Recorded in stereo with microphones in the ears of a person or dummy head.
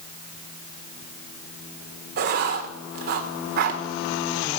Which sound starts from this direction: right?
Writing, at 2.2 s.